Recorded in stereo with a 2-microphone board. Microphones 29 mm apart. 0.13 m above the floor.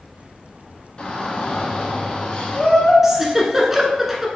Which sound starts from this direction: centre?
A giggle, at 3.0 s.